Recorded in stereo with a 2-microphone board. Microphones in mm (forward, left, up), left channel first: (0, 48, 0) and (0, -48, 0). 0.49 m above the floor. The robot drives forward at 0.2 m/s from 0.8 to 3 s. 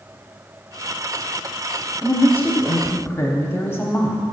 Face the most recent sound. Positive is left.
turn(degrees=25)  # may be behind; listen again after turning